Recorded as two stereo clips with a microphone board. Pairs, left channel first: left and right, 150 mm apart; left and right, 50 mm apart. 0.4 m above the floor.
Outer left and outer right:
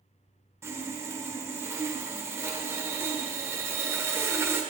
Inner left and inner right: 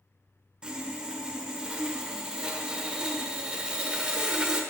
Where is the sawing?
15° right (ahead or behind), 1.2 m.